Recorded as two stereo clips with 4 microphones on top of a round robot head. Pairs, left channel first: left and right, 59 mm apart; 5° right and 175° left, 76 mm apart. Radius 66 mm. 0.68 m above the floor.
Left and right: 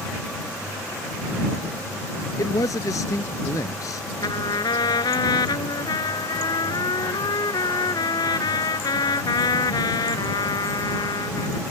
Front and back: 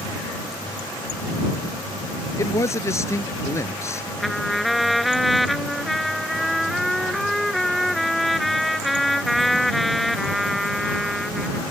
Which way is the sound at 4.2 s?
85° left.